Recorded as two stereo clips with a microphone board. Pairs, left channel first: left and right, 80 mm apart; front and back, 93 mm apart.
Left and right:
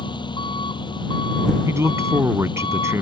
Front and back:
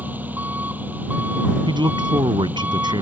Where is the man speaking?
145° right.